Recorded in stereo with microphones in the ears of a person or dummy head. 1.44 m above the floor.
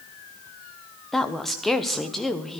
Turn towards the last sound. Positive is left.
turn(degrees=0)  # may be behind; listen again after turning